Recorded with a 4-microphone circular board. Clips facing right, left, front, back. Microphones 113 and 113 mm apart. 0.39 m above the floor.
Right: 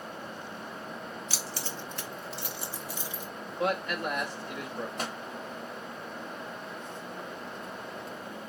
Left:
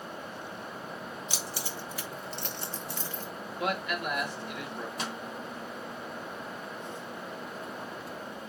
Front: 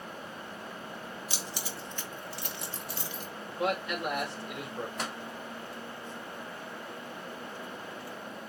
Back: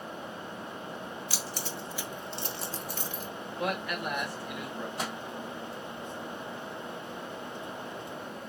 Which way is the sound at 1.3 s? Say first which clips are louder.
Even, back 2 dB; 40° left.